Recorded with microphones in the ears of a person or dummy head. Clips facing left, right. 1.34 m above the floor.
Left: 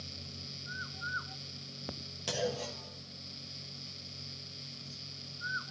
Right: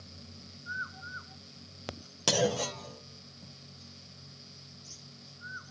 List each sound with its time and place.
2.3 s a clunk: 65° right (ahead or behind), 1.0 m